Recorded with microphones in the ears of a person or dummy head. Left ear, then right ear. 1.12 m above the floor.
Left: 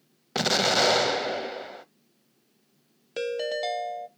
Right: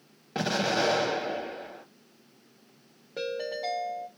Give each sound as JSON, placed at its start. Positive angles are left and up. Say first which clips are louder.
{"t": 0.3, "sound": "an explosion", "louder": "left 5 dB", "side_deg": 40, "distance_m": 0.5}
{"t": 3.2, "sound": "a ringtone", "louder": "left 4 dB", "side_deg": 75, "distance_m": 0.8}